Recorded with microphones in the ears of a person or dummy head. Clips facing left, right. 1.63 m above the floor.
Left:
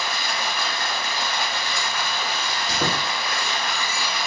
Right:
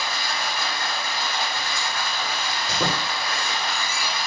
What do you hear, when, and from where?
0.0 s running water: 55° left (ahead or behind), 0.8 m
2.7 s a squeak: 25° right (ahead or behind), 1.7 m